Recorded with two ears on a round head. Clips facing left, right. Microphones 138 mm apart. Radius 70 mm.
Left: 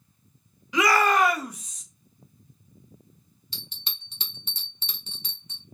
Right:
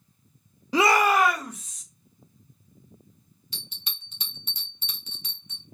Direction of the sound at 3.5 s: 25° left (ahead or behind).